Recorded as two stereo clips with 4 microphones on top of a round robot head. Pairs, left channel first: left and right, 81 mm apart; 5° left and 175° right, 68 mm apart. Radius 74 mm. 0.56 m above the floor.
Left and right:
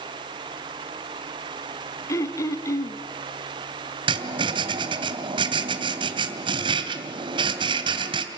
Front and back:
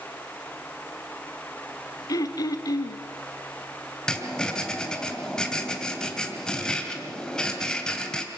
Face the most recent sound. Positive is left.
turn(degrees=-80)